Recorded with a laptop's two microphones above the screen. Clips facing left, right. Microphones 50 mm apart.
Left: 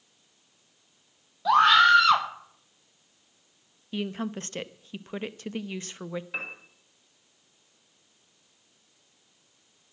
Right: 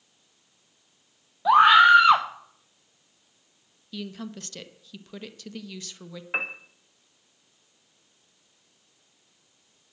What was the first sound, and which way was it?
A scream, 15° right (ahead or behind).